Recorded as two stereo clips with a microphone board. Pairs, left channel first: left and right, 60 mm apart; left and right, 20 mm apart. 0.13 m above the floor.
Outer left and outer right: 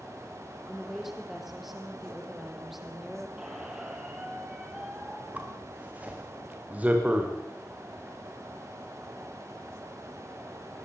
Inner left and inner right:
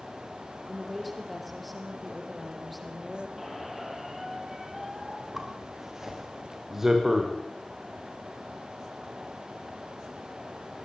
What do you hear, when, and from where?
0.7 s a woman speaking: 5° right (ahead or behind), 5 m
3.4 s a squeak: 15° right (ahead or behind), 3.5 m
5.3 s a zipper: 25° right (ahead or behind), 5 m